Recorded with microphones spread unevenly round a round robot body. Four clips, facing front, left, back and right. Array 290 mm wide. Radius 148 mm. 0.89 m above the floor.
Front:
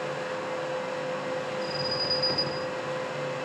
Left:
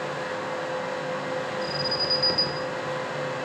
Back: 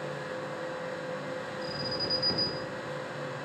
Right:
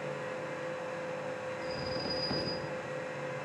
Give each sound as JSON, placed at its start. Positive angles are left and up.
{"t": 1.6, "sound": "an alarm", "azimuth_deg": 75, "distance_m": 3.5}